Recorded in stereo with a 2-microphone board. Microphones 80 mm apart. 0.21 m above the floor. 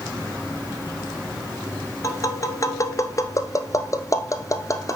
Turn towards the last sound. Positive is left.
turn(degrees=40)  # may be behind; listen again after turning